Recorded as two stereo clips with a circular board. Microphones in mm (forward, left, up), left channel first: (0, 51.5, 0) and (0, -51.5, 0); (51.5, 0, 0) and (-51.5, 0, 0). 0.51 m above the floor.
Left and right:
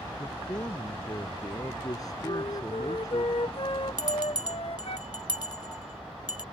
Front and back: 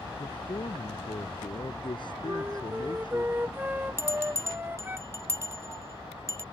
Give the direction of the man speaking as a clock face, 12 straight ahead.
11 o'clock.